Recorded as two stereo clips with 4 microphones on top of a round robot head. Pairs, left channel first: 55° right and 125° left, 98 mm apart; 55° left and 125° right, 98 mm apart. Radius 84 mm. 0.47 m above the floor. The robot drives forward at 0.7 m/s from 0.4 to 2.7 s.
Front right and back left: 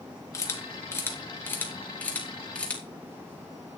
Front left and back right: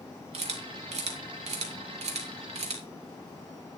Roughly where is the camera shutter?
Behind right.